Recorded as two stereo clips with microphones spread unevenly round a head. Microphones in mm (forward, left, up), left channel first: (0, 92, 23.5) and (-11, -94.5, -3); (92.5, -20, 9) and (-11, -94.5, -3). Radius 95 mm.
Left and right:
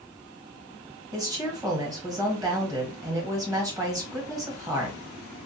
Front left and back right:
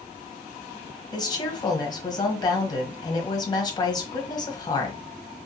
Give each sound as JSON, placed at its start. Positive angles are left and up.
{"t": 1.1, "sound": "a woman speaking", "azimuth_deg": -25, "distance_m": 1.2}